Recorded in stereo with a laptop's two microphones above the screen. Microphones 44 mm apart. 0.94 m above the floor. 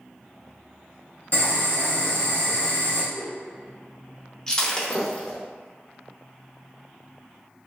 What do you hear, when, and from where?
1.3 s boiling: 55° left (ahead or behind), 1.1 m
3.1 s a whoosh: 40° left (ahead or behind), 0.9 m
4.5 s breaking glass: 15° left (ahead or behind), 0.6 m